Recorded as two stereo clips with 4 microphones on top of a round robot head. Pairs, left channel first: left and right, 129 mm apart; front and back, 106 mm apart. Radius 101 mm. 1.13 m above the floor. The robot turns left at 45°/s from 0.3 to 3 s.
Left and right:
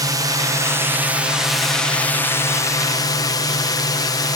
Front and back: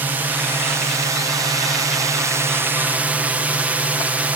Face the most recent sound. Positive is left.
turn(degrees=115)